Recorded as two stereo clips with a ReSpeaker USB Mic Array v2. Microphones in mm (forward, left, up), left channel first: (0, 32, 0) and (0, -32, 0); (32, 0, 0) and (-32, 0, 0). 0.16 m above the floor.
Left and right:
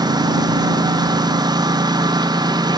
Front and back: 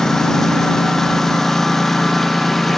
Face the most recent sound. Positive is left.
turn(degrees=-85)